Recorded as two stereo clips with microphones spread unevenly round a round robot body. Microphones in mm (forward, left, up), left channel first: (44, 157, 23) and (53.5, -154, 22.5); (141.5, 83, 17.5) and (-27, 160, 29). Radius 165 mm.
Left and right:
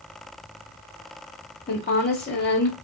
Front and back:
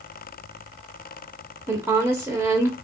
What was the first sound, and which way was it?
A woman speaking, 80° left.